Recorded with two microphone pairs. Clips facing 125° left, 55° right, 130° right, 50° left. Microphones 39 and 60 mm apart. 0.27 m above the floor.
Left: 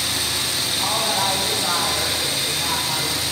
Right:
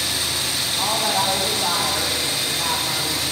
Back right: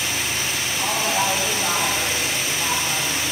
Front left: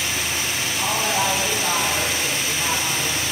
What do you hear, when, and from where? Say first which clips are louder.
0.8 s a woman speaking: right 1 dB, even; 35° right, 9 m